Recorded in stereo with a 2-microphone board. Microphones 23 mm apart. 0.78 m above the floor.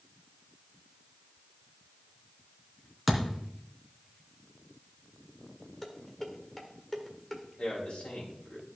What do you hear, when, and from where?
3.1 s a thud: 5° left (ahead or behind), 2.5 m
5.8 s dishes clattering: 15° left (ahead or behind), 1.7 m
7.6 s a man speaking: 65° left (ahead or behind), 4 m